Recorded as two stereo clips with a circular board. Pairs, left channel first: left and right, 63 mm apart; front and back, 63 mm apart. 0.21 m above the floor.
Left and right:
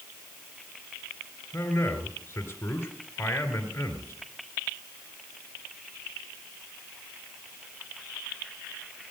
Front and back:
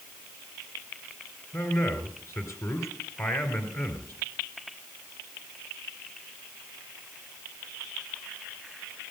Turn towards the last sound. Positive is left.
turn(degrees=40)